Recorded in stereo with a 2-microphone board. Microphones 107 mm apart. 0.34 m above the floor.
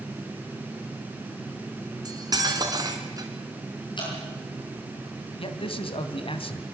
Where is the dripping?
45° left (ahead or behind), 8.5 m.